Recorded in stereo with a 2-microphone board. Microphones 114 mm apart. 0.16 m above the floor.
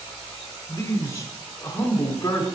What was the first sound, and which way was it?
A man speaking, 25° left (ahead or behind).